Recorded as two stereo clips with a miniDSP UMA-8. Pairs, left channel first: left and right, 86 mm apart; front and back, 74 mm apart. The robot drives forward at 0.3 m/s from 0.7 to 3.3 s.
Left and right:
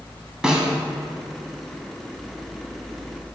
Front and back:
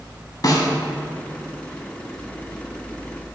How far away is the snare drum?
About 0.8 m.